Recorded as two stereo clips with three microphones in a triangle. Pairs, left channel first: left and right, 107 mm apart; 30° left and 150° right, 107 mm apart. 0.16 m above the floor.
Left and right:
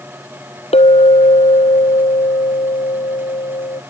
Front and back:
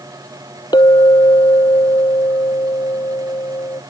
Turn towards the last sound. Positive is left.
turn(degrees=75)